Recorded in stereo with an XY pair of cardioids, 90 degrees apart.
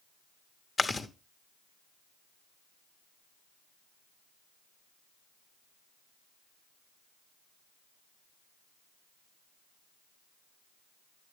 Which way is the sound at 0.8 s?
30° left.